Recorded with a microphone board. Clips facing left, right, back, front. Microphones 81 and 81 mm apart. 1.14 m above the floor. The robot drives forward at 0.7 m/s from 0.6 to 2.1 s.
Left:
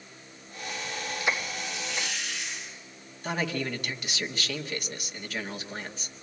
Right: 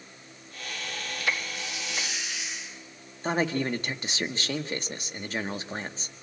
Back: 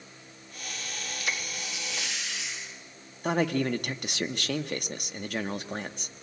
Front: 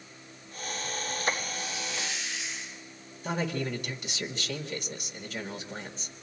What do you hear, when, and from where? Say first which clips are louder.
1.5 s a hiss: left 1 dB, front 2 dB; 170° right, 8.5 m
3.2 s a man speaking: right 4 dB, back 5 dB; 150° right, 1.6 m